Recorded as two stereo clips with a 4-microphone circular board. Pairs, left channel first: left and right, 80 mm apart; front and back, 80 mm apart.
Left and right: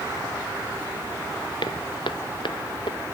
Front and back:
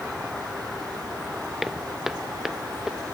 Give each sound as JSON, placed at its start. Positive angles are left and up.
{"t": 1.6, "sound": "footsteps", "azimuth_deg": 95}